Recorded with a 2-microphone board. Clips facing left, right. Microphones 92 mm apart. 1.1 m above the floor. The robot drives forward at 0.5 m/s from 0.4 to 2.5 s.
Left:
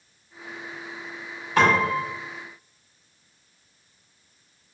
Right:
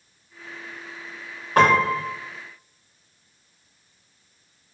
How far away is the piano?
About 1.9 m.